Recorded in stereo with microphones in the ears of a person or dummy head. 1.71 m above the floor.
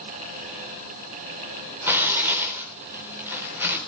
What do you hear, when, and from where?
1.9 s tearing paper: 10° right (ahead or behind), 3.5 m